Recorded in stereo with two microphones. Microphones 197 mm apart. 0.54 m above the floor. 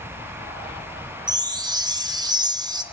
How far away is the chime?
About 0.6 m.